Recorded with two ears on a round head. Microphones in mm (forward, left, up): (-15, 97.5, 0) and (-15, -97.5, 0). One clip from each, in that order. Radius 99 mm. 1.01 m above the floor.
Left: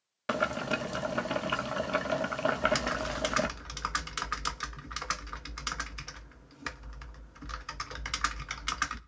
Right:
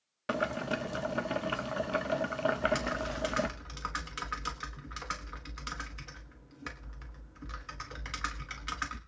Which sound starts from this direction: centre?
Boiling, at 0.3 s.